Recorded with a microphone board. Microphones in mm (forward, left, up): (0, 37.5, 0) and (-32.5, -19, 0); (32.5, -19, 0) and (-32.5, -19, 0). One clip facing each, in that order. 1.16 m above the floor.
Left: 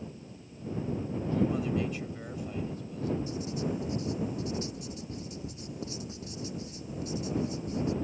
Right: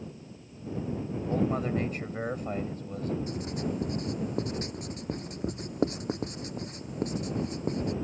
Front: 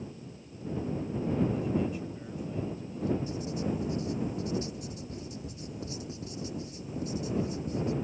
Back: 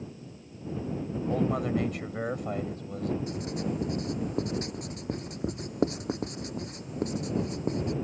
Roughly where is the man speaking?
Behind.